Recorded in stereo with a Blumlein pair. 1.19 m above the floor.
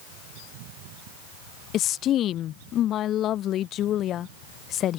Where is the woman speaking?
30° left.